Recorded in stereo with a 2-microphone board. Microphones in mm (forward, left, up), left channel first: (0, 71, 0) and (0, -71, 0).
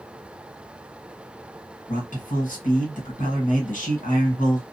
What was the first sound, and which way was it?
A man speaking, 65° left (ahead or behind).